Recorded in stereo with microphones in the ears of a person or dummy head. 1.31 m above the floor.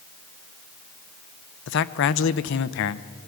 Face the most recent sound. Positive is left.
turn(degrees=65)  # may be behind; listen again after turning